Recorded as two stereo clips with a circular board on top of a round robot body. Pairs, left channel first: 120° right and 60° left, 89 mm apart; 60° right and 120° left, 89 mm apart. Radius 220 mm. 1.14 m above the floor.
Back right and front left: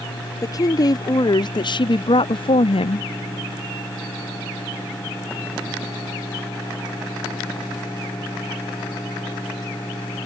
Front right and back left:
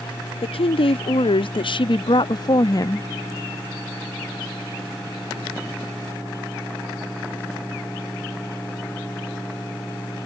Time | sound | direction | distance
0.4 | a woman speaking | 70° right | ?